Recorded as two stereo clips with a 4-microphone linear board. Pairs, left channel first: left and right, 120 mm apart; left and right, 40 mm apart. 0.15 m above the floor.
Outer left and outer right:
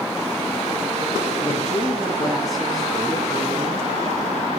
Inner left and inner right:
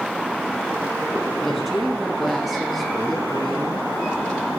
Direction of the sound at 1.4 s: Centre (ahead or behind).